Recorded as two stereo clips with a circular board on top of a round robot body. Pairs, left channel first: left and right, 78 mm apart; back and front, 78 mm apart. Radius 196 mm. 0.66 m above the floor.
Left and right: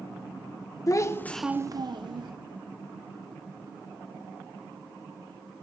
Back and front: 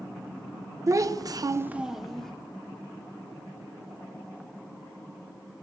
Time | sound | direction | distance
0.9 | a child speaking | 45° left | 0.9 m